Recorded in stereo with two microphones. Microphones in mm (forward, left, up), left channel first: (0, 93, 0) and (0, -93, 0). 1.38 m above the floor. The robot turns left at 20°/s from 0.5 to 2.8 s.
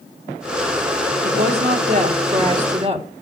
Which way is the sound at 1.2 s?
115° right.